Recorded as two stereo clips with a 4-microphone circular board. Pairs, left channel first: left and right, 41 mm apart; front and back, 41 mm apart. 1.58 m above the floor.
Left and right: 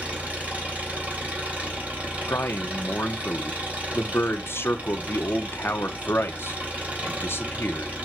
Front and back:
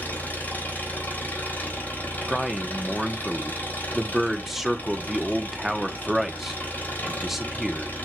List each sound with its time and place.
0.0 s an engine running: 40° right, 3 m
2.3 s a man speaking: 95° left, 1.2 m